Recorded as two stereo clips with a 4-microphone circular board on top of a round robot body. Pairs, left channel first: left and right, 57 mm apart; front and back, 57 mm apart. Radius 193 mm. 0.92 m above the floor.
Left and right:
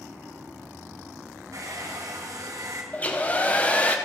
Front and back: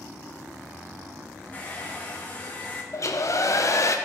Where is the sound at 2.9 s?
25° left, 1.1 m.